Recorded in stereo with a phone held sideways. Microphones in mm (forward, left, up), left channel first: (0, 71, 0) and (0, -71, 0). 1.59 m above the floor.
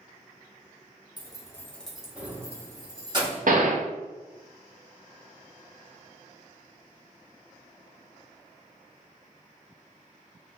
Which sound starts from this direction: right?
A gunshot, at 3.5 s.